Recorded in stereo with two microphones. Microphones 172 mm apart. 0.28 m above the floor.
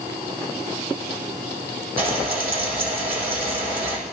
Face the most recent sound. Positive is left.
turn(degrees=-60)  # may be behind; listen again after turning